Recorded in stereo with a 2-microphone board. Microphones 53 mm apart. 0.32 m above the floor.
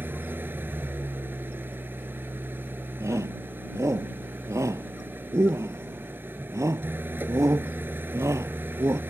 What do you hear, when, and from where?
0.0 s an engine running: 40° right (ahead or behind)
3.0 s a shout: 80° right